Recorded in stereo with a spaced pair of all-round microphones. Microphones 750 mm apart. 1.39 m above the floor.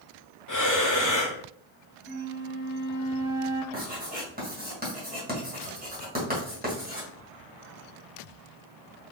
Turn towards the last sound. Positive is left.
turn(degrees=-15)  # may be behind; listen again after turning